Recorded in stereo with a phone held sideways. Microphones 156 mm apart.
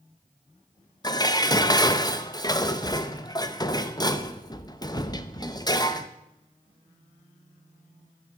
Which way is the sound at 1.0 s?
25° left (ahead or behind).